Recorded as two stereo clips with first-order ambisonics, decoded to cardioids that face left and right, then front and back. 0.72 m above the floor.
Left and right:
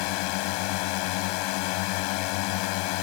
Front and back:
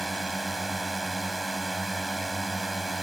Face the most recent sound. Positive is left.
turn(degrees=95)